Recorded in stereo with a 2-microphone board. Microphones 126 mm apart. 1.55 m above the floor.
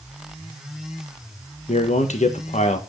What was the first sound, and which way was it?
A man speaking, 65° left (ahead or behind).